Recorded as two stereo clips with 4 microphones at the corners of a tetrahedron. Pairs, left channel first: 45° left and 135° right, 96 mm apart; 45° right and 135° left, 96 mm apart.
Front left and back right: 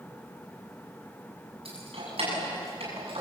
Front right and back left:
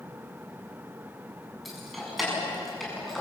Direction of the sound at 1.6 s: 135° right.